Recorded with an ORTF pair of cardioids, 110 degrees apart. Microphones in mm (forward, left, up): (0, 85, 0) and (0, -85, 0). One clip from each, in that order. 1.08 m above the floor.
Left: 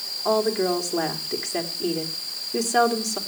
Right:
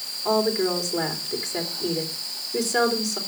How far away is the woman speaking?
About 3 m.